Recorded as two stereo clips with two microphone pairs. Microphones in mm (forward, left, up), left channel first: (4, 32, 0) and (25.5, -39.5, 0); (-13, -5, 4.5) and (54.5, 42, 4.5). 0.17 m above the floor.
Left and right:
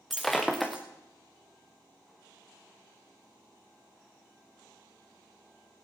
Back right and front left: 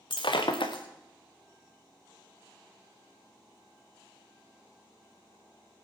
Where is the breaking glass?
165° right, 2 m.